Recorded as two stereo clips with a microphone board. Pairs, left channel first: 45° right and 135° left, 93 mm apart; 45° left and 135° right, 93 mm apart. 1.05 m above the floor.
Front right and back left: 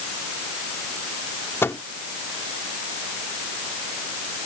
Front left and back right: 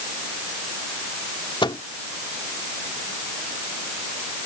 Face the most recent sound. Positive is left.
turn(degrees=15)